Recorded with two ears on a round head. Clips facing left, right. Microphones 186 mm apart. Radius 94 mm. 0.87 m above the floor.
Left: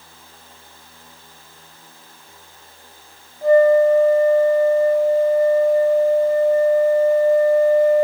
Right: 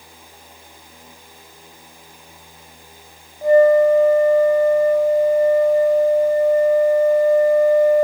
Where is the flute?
15° right (ahead or behind), 0.6 m.